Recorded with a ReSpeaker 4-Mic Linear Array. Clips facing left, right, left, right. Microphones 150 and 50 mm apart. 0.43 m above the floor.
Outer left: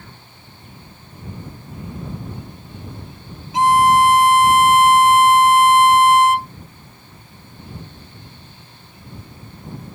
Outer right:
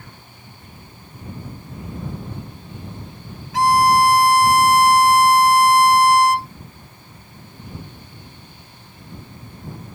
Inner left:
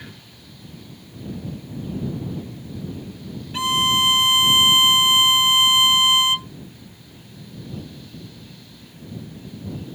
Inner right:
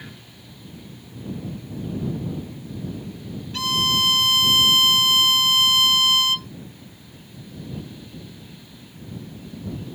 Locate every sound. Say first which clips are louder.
3.5 s a violin: outer left 1 dB, inner left 3 dB; 20° left (ahead or behind)